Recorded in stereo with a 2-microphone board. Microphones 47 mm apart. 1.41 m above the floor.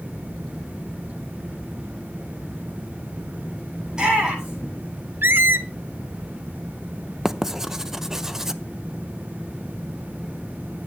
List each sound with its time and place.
3.9 s a shout: 20° right (ahead or behind), 9 m
5.2 s a squeak: 55° right (ahead or behind), 0.7 m
7.2 s writing: 10° right (ahead or behind), 0.6 m